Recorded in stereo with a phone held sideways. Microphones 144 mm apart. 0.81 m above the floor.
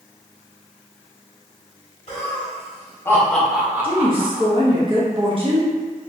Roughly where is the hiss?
No hiss in this recording.